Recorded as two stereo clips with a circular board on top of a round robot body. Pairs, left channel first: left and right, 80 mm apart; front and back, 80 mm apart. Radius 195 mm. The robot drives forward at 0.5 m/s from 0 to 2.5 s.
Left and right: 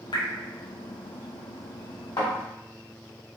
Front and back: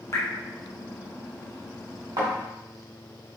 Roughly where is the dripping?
Ahead left.